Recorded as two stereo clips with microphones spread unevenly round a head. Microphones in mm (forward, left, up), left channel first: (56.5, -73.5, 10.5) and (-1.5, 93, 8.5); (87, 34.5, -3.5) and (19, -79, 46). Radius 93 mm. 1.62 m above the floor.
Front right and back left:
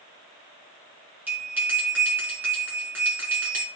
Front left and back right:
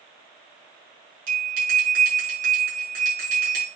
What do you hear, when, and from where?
1.3 s a bell: 170° right, 5 m